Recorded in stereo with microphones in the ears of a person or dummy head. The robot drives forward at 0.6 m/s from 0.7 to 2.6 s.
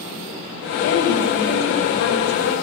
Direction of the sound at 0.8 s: 70° left (ahead or behind).